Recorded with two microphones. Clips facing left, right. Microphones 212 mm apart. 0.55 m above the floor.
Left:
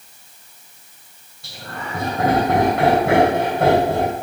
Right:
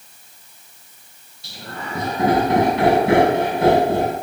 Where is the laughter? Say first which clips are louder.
Even; 65° left (ahead or behind), 3.5 m.